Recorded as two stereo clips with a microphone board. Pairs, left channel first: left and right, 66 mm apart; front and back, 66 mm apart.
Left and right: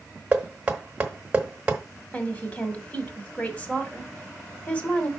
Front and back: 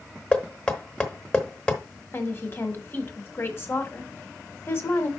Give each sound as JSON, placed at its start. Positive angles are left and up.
{"t": 0.3, "sound": "knocking", "azimuth_deg": -50, "distance_m": 1.2}
{"t": 2.1, "sound": "a woman speaking", "azimuth_deg": 35, "distance_m": 1.5}